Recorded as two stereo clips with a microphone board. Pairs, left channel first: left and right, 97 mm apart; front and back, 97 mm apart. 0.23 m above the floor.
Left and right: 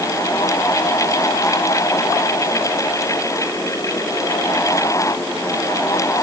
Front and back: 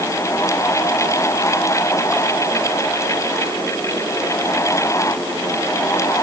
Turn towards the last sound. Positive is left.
No sound to turn to.